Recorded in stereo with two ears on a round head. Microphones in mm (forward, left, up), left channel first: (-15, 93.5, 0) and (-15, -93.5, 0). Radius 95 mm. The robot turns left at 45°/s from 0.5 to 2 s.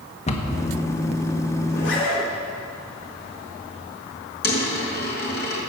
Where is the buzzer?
No buzzer in this recording.